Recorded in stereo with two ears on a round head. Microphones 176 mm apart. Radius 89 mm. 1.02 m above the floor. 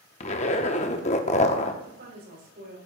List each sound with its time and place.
0.2 s a zipper: 30° left (ahead or behind), 0.7 m
1.8 s a woman speaking: 45° right (ahead or behind), 5.5 m